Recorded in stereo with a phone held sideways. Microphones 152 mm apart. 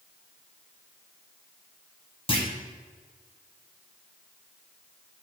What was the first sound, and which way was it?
A clunk, 40° left (ahead or behind).